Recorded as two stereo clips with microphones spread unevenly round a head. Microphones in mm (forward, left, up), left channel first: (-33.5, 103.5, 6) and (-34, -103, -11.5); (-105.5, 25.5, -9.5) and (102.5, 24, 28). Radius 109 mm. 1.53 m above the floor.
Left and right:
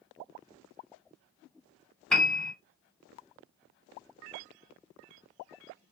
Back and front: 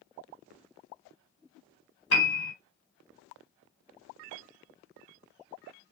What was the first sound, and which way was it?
A piano, 170° left.